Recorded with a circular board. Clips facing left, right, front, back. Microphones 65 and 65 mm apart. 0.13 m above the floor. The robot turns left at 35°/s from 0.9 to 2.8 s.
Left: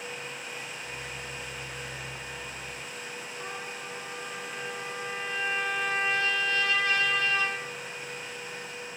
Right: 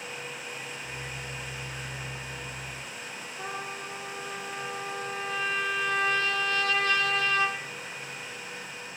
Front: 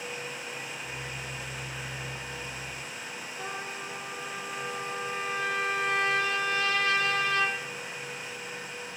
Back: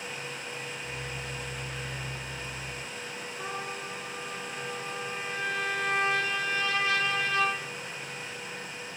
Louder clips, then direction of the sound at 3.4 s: Right 4 dB, back 1 dB; 105° right.